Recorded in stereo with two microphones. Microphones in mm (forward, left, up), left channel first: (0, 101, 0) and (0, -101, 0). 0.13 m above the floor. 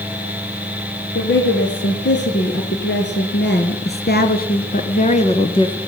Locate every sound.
1.1 s a woman speaking: 70° left (ahead or behind), 3 m; by 5.8 s 20° left (ahead or behind), 1.2 m